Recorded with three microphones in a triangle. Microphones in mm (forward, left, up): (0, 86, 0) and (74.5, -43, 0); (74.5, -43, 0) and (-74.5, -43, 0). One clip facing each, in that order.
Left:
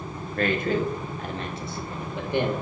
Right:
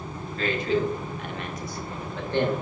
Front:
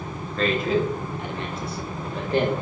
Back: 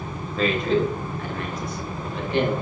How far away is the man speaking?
About 1.1 m.